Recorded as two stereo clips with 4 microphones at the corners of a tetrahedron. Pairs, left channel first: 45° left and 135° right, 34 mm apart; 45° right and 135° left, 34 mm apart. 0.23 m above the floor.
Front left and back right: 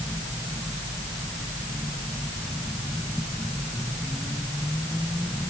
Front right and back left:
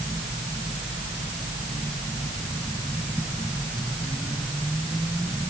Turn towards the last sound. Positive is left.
No sound to turn to.